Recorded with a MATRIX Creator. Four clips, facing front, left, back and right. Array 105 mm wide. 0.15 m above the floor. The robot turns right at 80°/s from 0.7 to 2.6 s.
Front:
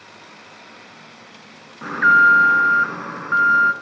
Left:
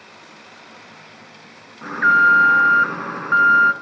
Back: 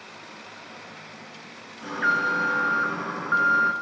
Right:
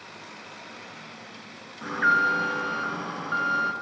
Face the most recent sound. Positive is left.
turn(degrees=80)